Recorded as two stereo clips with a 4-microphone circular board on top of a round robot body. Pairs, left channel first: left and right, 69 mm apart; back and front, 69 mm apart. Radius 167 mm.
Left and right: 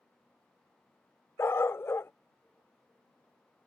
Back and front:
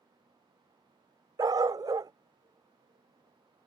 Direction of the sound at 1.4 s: 35° left.